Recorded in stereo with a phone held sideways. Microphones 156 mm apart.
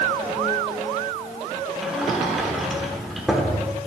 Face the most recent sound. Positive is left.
turn(degrees=0)  # may be behind; listen again after turning